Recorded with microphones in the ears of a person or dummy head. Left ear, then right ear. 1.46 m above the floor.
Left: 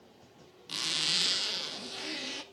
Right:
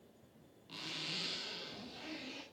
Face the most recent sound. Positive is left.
turn(degrees=70)  # may be behind; listen again after turning